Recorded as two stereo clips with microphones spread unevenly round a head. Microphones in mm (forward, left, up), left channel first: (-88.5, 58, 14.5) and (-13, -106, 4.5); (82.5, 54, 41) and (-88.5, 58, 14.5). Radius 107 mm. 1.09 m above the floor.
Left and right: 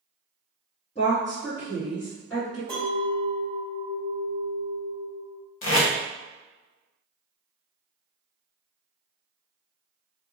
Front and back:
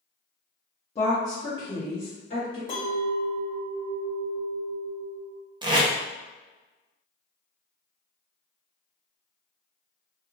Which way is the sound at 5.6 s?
110° left.